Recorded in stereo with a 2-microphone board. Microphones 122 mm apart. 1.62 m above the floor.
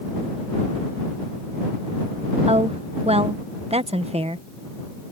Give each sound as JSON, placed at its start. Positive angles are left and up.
{"t": 2.5, "sound": "a woman speaking", "side_deg": -55}